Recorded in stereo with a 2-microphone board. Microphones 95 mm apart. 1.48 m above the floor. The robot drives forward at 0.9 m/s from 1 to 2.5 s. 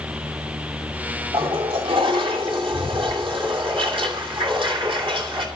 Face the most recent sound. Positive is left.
turn(degrees=-70)  # may be behind; listen again after turning